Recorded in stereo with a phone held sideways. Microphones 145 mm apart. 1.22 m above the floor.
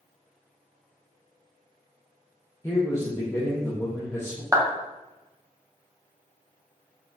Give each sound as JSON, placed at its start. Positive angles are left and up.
{"t": 2.6, "sound": "a man speaking", "side_deg": 20, "distance_m": 0.7}
{"t": 4.5, "sound": "a clap", "side_deg": -20, "distance_m": 0.6}